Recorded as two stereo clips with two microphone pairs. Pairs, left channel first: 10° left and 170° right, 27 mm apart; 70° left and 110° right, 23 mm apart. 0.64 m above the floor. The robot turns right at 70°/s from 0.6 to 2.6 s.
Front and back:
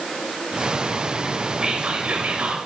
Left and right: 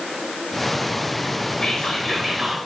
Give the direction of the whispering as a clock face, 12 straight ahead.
8 o'clock.